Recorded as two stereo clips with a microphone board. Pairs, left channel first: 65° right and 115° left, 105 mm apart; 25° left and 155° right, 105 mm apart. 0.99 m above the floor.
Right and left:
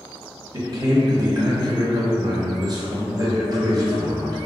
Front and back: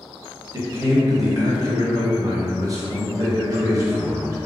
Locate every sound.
0.5 s a man speaking: 155° left, 0.8 m